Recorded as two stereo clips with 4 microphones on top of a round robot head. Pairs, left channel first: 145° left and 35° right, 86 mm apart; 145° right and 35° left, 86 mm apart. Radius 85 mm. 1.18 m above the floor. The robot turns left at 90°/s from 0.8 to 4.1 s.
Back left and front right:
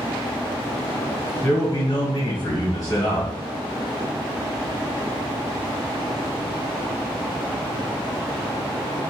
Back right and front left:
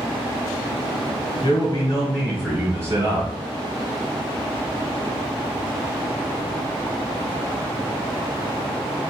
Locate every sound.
1.4 s a man speaking: 150° right, 1.0 m; by 3.3 s 40° left, 1.0 m